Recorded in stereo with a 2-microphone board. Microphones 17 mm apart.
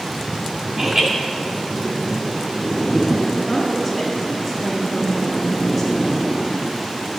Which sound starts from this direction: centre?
A woman speaking, at 3.5 s.